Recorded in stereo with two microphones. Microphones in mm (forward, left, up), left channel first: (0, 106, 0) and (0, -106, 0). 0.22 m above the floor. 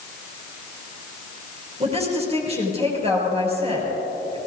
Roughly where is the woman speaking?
Right.